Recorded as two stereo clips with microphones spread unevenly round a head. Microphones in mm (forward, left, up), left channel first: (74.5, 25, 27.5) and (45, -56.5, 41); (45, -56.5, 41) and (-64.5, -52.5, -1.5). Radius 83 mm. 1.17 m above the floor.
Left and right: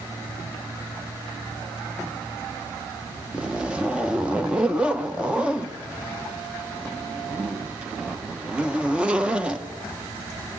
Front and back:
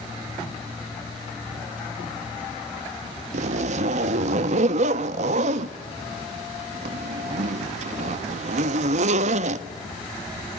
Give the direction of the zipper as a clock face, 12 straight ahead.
6 o'clock.